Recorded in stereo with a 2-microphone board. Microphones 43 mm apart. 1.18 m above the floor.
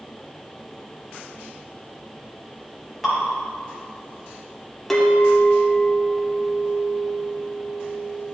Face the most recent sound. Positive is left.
turn(degrees=5)  # may be behind; listen again after turning